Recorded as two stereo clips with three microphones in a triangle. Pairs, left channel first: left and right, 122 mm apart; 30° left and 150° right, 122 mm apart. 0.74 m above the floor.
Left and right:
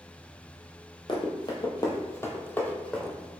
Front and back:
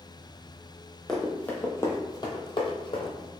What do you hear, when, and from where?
1.1 s running footsteps: 115° left, 1.0 m; by 3.3 s 5° left, 1.2 m